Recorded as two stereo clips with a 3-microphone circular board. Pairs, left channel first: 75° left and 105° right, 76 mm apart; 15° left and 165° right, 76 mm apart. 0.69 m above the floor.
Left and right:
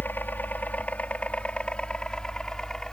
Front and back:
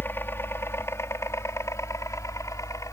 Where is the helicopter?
40° left; by 2.9 s 5° right.